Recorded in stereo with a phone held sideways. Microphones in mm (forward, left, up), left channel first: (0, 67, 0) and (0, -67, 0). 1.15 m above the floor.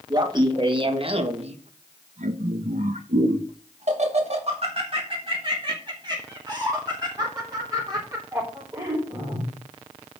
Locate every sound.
0.1 s laughter: 30° right (ahead or behind), 1.8 m; by 9.5 s 20° right (ahead or behind), 4 m